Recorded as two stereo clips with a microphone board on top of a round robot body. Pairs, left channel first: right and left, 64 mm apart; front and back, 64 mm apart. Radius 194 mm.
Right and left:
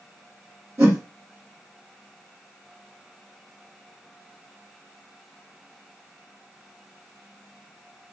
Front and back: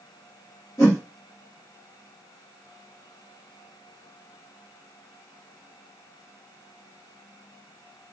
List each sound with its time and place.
0.8 s a whoosh: 45° left, 1.5 m